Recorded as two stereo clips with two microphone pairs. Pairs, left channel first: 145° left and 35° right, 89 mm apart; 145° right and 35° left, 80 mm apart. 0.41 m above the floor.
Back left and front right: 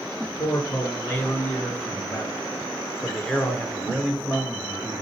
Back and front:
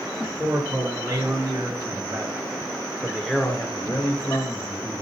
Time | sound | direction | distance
0.2 | a man speaking | 75° left | 4.5 m